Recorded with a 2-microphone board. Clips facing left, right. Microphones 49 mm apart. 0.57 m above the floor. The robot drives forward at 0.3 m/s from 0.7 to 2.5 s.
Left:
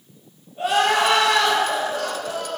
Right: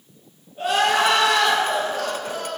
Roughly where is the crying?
Centre.